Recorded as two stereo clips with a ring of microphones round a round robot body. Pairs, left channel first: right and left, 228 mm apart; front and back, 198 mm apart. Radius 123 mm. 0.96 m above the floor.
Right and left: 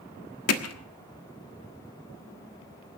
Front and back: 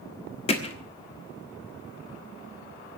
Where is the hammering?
65° right, 1.4 m.